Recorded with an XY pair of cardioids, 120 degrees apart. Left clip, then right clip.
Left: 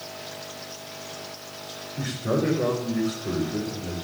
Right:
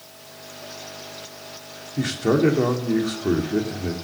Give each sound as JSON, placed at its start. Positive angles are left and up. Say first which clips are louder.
{"t": 2.0, "sound": "a man speaking", "louder": "right 6 dB", "azimuth_deg": -60, "distance_m": 3.5}